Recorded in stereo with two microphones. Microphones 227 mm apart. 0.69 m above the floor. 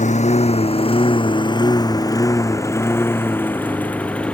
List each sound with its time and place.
0.0 s a lawn mower: 30° left (ahead or behind); by 4.3 s 5° left (ahead or behind)